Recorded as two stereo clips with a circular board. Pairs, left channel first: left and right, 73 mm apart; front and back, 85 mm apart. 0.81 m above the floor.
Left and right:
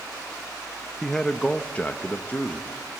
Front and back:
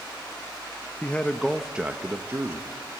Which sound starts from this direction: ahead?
A man speaking, at 1.0 s.